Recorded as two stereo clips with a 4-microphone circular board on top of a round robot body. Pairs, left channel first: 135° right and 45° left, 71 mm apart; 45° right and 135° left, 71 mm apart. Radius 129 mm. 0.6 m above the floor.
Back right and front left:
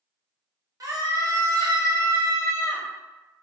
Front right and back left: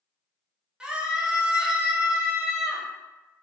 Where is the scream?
60° left, 1.2 m.